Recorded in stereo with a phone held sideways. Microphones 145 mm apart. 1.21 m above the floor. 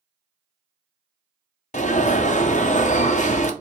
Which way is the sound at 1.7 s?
55° left (ahead or behind).